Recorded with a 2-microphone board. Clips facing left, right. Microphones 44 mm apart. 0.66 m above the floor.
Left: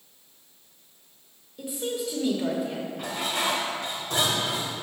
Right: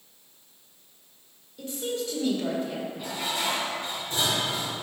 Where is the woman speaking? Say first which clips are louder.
Left 1 dB; 15° left (ahead or behind), 1.7 m.